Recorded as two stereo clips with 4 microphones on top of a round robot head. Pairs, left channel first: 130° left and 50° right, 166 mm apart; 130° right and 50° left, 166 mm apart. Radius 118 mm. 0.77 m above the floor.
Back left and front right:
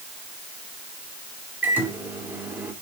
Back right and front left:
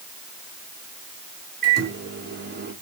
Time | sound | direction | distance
1.6 | a microwave | 30° left | 2.5 m